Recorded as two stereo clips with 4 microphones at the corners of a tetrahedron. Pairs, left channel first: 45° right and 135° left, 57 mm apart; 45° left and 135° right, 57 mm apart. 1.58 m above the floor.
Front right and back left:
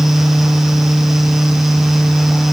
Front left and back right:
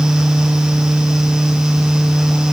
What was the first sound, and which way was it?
Only background noise.